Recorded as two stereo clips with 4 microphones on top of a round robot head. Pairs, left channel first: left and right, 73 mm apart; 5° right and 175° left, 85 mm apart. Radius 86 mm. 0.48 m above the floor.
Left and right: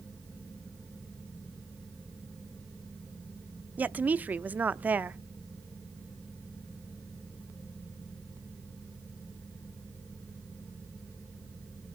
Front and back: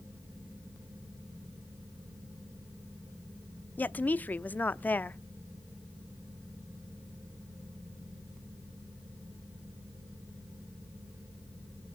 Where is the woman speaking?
50° right, 0.7 m.